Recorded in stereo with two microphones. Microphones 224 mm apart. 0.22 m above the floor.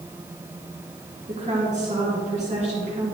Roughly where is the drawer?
No drawer in this recording.